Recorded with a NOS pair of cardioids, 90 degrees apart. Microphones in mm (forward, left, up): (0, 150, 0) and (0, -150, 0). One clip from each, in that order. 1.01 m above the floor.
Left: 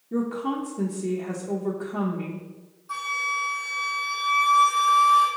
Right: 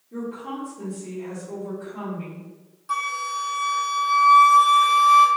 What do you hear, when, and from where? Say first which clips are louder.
0.1 s a woman speaking: left 5 dB; 55° left, 0.6 m
2.9 s a flute: right 1 dB; 45° right, 0.9 m